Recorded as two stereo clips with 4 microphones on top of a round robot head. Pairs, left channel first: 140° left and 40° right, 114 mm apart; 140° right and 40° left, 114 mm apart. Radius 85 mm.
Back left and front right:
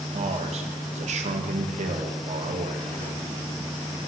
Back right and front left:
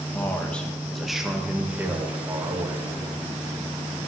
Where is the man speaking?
70° right, 1.7 m; by 3.0 s 15° right, 2 m.